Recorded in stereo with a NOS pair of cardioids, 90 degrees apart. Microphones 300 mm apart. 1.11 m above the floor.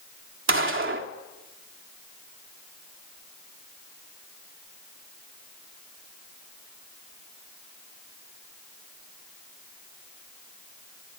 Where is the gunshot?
45° right, 3 m.